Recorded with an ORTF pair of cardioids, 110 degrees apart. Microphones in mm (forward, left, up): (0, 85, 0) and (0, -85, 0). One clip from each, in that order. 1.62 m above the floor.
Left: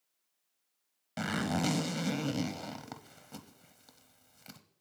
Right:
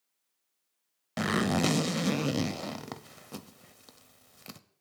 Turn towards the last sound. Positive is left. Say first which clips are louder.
# right 5 dB
turn(degrees=-30)